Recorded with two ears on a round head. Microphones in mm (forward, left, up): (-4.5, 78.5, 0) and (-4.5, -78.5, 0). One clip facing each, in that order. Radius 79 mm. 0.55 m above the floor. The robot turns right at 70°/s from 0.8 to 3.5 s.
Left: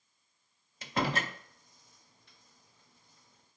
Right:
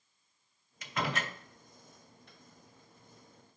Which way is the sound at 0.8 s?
25° left (ahead or behind).